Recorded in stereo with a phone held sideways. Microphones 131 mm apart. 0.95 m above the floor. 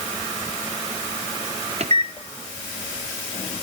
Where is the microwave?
55° right (ahead or behind), 0.5 m.